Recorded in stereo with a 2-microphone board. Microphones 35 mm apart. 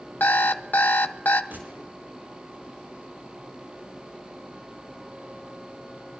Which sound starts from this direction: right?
A gunshot, at 1.5 s.